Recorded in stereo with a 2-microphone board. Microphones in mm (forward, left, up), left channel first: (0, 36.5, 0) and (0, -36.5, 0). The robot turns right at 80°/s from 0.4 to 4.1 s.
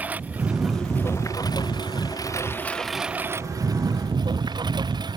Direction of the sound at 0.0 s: 20° right.